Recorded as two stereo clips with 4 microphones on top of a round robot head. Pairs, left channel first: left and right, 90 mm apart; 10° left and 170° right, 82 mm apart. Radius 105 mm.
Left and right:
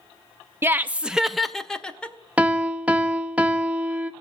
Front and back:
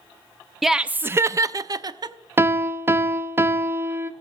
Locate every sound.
0.6 s laughter: 90° right, 0.6 m; by 2.1 s 165° left, 1.0 m
2.4 s a piano: 150° right, 0.7 m